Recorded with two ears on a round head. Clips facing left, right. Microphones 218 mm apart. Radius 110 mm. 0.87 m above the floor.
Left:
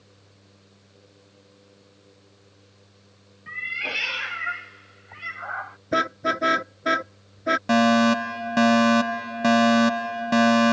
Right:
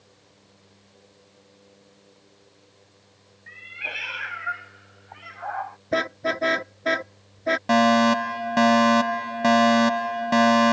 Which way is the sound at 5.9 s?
15° left (ahead or behind).